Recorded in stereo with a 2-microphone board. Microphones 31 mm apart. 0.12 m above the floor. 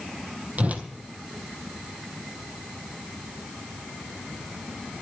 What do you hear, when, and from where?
0.6 s a whoosh: 55° right (ahead or behind), 1.6 m